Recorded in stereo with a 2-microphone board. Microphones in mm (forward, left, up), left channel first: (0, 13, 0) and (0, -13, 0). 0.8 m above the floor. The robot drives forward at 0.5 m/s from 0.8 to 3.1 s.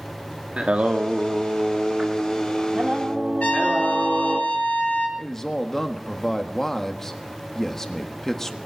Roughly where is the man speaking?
Centre.